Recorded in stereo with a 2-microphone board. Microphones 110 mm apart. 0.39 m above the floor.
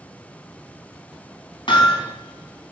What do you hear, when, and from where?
1.7 s hammering: 50° left (ahead or behind), 2 m